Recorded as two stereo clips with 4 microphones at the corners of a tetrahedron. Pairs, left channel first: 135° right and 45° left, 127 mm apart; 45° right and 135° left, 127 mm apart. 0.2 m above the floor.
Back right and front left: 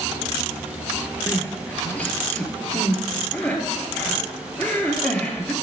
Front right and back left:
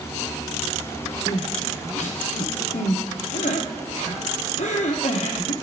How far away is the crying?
About 0.9 m.